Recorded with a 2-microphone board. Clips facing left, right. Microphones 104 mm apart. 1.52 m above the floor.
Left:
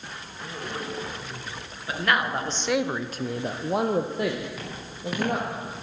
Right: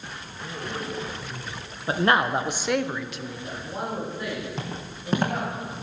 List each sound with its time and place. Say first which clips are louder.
1.9 s a man speaking: right 4 dB; 35° right (ahead or behind), 1.3 m; by 5.5 s 75° left (ahead or behind), 2.5 m
4.6 s footsteps: right 2 dB; 30° right (ahead or behind), 3 m